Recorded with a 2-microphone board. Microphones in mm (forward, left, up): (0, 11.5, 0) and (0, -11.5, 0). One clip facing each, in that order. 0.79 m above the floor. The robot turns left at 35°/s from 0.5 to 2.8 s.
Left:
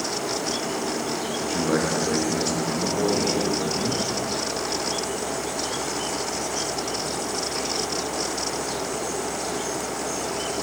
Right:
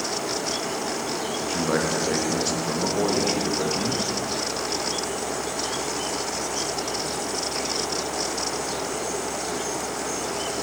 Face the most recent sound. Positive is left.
turn(degrees=-20)  # may be behind; listen again after turning